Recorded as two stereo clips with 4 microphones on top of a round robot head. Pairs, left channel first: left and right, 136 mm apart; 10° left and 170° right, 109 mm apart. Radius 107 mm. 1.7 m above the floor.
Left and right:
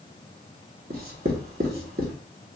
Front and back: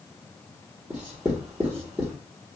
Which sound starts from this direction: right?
Writing, at 0.9 s.